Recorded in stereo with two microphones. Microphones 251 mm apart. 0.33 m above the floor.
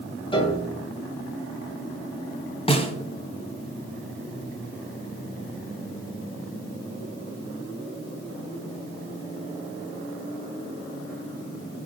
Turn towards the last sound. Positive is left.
turn(degrees=20)  # may be behind; listen again after turning